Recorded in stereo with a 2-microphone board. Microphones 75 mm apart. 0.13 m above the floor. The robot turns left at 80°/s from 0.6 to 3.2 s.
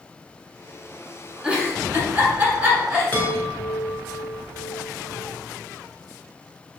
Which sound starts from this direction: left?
A chime, at 3.1 s.